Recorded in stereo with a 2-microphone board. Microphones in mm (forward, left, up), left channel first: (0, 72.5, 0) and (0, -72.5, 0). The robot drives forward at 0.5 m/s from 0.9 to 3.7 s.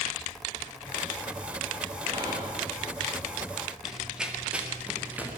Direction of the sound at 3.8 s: 5° right (ahead or behind).